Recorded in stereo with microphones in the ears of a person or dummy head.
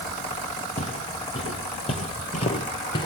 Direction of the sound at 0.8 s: 30° left (ahead or behind).